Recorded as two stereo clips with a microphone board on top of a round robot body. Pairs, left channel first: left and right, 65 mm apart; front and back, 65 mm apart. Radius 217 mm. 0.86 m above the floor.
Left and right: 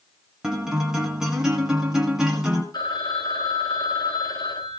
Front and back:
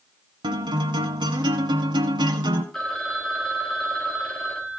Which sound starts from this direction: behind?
A guitar, at 0.4 s.